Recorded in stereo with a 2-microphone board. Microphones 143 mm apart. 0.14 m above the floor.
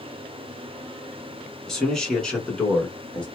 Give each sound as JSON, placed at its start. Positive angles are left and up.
{"t": 1.7, "sound": "a man speaking", "side_deg": 5, "distance_m": 1.2}